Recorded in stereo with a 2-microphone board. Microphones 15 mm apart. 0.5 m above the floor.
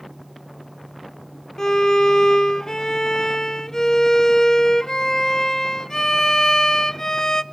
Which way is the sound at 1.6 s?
40° left (ahead or behind).